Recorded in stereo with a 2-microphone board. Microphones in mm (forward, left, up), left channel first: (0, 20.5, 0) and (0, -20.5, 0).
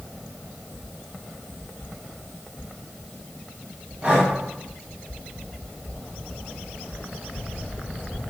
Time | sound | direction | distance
4.0 | breathing | 35° right (ahead or behind) | 3.5 m